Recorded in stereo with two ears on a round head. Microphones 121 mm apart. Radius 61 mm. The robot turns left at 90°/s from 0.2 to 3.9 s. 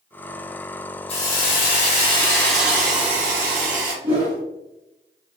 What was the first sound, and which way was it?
A hiss, 130° left.